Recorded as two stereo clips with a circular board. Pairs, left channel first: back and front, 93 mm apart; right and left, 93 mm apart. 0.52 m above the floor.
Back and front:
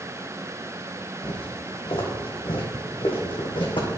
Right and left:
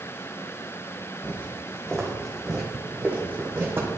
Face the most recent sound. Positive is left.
turn(degrees=150)